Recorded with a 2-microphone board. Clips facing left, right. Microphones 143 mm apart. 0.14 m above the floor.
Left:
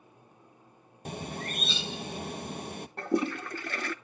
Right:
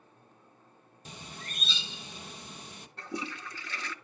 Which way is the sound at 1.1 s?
55° left (ahead or behind).